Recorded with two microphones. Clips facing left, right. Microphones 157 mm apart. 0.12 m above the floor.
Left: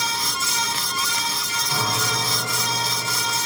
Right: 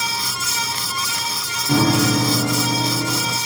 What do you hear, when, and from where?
1.7 s a piano: 60° right (ahead or behind), 1.8 m